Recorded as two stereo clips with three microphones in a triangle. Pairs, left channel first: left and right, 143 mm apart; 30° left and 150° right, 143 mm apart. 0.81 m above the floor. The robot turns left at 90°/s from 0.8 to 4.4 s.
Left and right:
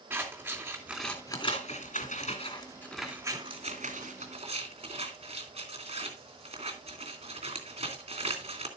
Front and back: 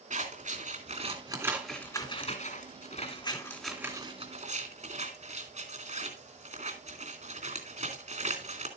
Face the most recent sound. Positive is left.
turn(degrees=-130)